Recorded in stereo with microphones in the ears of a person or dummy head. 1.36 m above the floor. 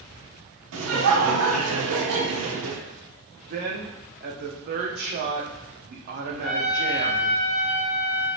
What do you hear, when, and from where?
0.7 s laughter: 65° right (ahead or behind), 0.6 m
3.5 s a woman speaking: 45° right (ahead or behind), 0.6 m
6.4 s a trumpet: 50° left (ahead or behind), 1.4 m